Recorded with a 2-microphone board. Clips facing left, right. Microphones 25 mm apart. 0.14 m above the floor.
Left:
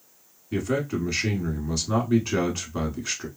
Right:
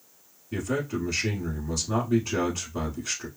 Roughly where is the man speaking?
Centre.